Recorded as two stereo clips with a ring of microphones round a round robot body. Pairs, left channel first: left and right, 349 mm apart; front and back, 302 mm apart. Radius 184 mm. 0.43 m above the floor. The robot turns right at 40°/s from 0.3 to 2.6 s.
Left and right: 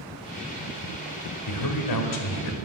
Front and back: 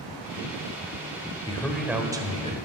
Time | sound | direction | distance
1.5 | a man speaking | 75° left | 1.6 m